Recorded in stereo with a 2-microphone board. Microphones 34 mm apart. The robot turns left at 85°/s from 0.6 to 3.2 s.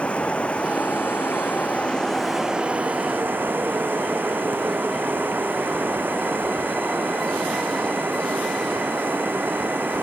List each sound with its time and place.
0.0 s running water: 140° left; by 10.0 s 80° right